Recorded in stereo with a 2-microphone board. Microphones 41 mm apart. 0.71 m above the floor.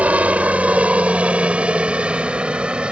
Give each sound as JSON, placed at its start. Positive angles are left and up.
{"t": 0.0, "sound": "a helicopter", "side_deg": -35}